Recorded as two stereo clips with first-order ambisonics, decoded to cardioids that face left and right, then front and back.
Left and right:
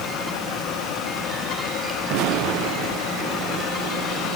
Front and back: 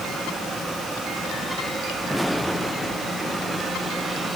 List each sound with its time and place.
Only background noise.